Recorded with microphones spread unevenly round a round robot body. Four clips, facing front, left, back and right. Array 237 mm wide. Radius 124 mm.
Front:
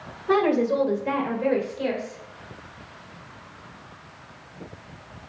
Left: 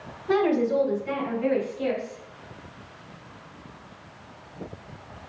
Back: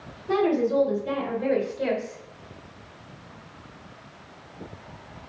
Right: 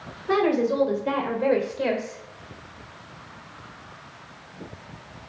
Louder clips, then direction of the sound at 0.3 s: Even, front 2 dB; 15° right.